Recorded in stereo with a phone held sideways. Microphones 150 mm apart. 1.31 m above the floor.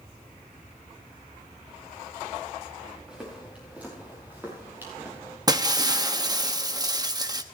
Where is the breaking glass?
25° right (ahead or behind), 0.8 m.